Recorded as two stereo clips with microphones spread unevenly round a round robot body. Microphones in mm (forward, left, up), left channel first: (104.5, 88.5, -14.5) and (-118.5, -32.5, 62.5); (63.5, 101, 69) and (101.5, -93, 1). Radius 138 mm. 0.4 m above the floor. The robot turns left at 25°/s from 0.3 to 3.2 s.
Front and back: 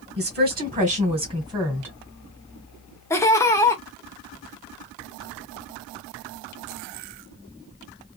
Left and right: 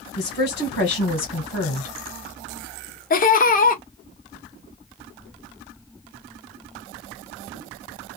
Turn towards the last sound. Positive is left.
turn(degrees=55)